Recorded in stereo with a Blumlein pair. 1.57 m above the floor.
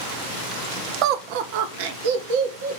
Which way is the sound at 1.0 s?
40° right.